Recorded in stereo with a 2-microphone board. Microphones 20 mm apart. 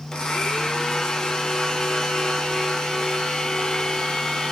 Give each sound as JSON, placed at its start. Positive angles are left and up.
{"t": 0.1, "sound": "a blender", "side_deg": 35, "distance_m": 0.7}